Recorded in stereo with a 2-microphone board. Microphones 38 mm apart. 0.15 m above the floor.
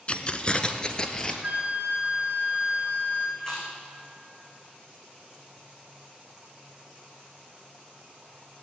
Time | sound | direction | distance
0.1 | keys jangling | 35° left (ahead or behind) | 0.9 m
1.4 | a flute | 40° right (ahead or behind) | 3 m
3.4 | chewing | 20° left (ahead or behind) | 3.5 m